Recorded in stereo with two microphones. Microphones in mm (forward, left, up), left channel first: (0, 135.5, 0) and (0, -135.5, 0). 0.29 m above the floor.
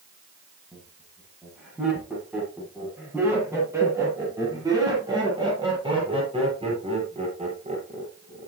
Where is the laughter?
Centre (ahead or behind), 9.5 m; by 8.5 s 30° right (ahead or behind), 9 m.